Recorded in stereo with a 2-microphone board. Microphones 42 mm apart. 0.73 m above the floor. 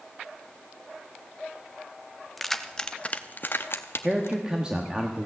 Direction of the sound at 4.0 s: 20° right (ahead or behind).